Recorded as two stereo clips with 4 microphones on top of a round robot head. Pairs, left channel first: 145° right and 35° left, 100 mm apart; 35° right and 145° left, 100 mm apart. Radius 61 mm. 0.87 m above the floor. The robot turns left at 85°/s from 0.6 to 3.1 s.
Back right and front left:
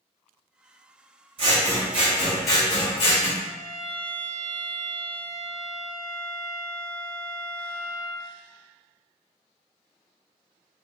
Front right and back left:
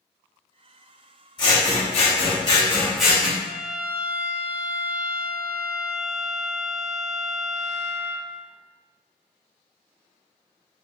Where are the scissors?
10° left, 1.9 m; by 3.3 s 135° right, 1.9 m.